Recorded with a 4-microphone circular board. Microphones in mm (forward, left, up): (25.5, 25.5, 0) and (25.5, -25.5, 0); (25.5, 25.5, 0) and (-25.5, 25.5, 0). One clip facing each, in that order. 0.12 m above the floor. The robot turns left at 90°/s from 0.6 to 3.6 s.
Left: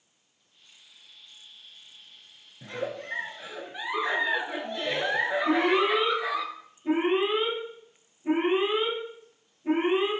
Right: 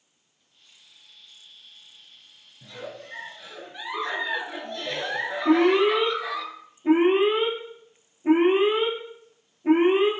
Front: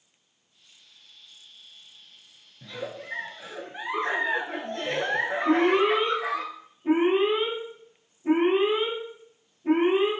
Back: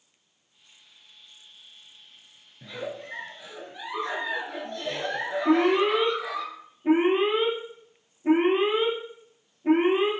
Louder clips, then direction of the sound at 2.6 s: Left 5 dB, back 1 dB; 110° left.